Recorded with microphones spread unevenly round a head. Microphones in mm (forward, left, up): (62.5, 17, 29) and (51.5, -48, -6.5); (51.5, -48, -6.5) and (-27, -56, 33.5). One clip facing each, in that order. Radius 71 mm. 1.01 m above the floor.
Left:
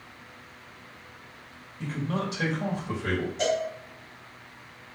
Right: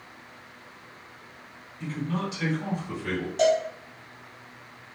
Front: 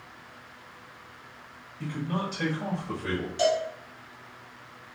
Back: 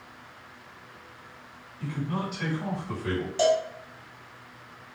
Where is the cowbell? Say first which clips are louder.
Right 6 dB, back 2 dB; 135° right, 1.4 m.